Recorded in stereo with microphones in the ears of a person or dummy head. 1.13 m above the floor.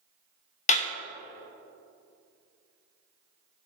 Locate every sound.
0.7 s a clap: 50° left (ahead or behind), 1.0 m